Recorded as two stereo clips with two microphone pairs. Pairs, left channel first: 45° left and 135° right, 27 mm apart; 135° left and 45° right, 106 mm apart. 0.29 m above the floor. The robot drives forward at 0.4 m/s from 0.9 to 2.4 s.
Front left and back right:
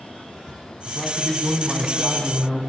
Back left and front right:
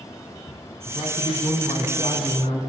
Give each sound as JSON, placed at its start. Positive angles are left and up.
{"t": 0.9, "sound": "a man speaking", "azimuth_deg": 110, "distance_m": 2.0}